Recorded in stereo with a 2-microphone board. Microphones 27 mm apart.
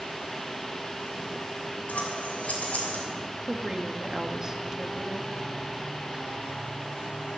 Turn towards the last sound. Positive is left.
turn(degrees=-20)  # may be behind; listen again after turning